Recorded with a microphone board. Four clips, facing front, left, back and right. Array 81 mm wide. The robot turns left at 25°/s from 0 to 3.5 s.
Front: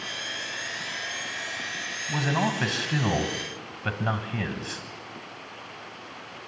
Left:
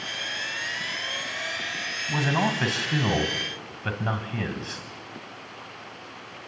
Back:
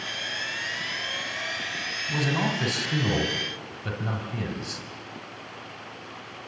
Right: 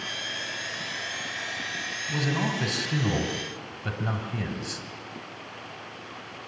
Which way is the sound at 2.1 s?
70° left.